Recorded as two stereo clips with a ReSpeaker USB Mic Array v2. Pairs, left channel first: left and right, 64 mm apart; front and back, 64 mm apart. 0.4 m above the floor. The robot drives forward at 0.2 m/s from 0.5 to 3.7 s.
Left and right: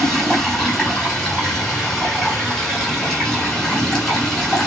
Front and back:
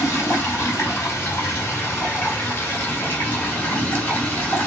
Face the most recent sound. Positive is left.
turn(degrees=10)